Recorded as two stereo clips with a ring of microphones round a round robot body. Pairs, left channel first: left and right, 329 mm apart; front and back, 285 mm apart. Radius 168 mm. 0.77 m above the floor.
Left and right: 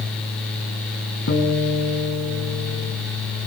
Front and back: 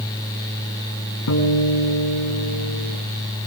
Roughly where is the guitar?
Ahead left.